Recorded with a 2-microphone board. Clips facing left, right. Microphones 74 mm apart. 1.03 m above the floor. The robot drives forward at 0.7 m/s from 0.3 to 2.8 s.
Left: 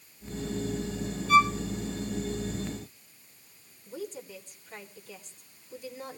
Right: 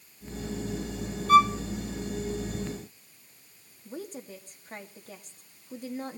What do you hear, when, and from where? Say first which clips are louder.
1.3 s a violin: right 3 dB; 50° right (ahead or behind), 0.9 m; by 1.5 s 55° right (ahead or behind), 0.8 m
3.9 s a woman speaking: even; 45° right (ahead or behind), 2.5 m